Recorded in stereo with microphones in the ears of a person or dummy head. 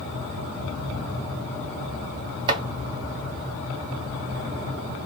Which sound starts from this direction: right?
Chopping, at 2.5 s.